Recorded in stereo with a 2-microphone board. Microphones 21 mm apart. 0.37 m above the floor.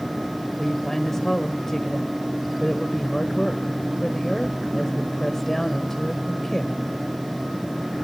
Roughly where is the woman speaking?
Centre.